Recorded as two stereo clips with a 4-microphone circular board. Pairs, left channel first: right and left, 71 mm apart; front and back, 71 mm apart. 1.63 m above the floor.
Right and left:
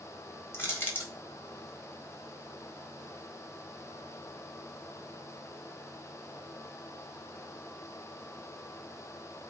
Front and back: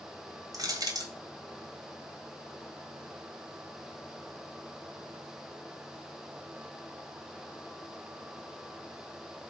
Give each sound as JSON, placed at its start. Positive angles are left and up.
{"t": 0.5, "sound": "crushing", "azimuth_deg": -150, "distance_m": 1.5}